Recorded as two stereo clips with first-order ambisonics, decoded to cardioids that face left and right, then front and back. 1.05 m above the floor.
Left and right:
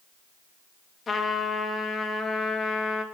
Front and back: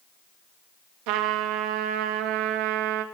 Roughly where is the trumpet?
Behind.